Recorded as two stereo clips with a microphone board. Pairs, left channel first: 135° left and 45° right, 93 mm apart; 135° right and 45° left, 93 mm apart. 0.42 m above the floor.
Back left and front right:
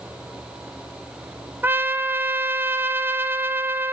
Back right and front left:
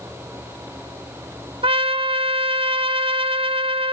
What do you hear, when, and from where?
1.6 s a trumpet: 25° left, 1.0 m